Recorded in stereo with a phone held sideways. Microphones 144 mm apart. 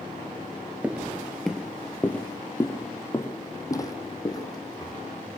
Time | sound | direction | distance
0.8 | footsteps | 10° right (ahead or behind) | 1.5 m